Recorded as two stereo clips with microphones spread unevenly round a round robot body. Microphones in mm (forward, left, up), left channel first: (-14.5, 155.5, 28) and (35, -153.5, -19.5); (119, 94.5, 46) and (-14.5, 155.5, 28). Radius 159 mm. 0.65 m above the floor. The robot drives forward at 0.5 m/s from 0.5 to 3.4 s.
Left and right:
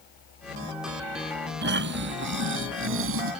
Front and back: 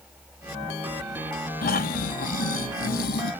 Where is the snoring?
25° right; by 3.3 s 35° right.